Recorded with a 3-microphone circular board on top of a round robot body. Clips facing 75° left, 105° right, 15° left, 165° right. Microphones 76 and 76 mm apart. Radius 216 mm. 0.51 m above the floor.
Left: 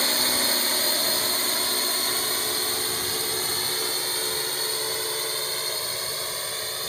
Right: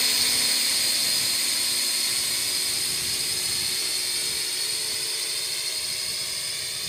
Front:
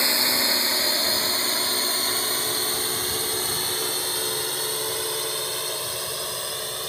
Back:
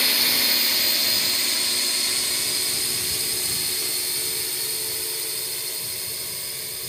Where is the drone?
65° left; by 6.9 s 30° left.